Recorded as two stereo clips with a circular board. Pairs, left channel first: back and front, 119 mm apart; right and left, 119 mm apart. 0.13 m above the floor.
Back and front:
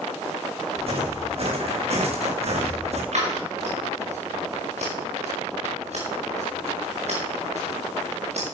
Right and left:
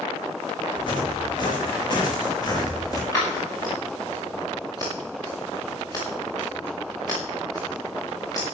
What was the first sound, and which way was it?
Footsteps, 35° right.